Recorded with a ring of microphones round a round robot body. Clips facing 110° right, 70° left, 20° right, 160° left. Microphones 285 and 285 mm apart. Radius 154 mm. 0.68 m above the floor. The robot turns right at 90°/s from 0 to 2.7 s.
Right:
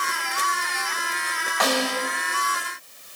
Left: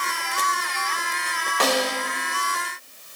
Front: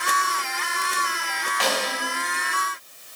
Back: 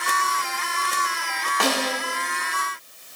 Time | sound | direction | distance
1.6 | a snare drum | 120° left | 1.7 m